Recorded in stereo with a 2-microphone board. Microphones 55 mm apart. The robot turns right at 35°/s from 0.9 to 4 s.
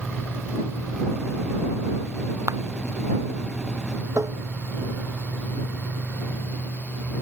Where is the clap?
70° right (ahead or behind).